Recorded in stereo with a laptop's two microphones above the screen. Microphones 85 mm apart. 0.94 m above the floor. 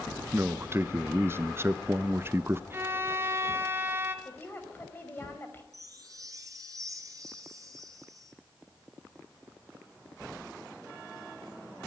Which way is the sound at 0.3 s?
30° right (ahead or behind).